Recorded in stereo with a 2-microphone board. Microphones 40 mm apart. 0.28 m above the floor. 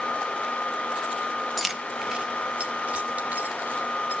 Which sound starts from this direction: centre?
Keys jangling, at 1.6 s.